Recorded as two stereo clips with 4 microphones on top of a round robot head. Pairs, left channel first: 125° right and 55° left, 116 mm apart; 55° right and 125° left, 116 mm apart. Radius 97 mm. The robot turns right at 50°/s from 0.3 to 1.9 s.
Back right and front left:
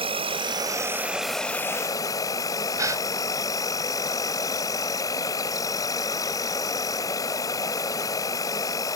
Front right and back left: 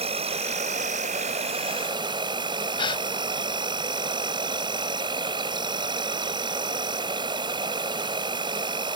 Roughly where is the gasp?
Ahead.